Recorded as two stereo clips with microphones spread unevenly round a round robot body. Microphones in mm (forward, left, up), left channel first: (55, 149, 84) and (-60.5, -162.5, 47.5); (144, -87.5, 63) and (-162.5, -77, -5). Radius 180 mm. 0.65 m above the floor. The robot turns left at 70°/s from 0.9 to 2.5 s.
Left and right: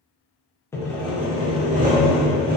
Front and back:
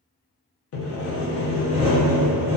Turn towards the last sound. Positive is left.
turn(degrees=-130)